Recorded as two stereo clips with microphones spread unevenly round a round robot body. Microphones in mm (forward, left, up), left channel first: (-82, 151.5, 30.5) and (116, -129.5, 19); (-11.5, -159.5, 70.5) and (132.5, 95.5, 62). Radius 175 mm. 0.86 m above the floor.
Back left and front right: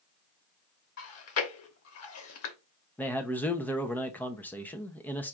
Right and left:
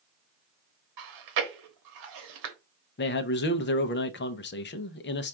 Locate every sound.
1.0 s chewing: 75° left, 1.1 m
3.0 s a man speaking: 150° right, 0.6 m